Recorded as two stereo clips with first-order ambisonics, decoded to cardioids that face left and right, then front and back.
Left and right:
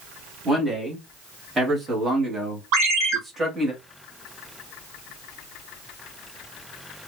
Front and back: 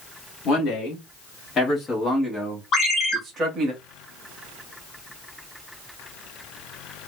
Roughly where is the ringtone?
Ahead right.